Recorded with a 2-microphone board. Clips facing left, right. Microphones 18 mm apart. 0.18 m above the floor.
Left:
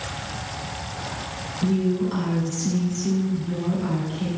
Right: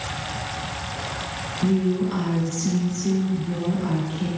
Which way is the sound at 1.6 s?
5° left (ahead or behind).